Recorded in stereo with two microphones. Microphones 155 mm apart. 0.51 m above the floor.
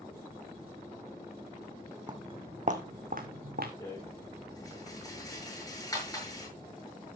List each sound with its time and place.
2.1 s footsteps: 30° right (ahead or behind), 1.5 m; by 3.7 s 75° right (ahead or behind), 2.5 m
3.8 s a rattle: 25° left (ahead or behind), 7 m